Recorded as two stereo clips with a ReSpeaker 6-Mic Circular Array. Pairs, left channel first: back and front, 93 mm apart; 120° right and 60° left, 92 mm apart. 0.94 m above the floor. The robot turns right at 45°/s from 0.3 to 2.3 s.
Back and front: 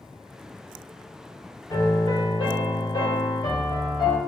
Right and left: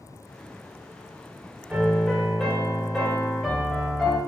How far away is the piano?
About 1.7 m.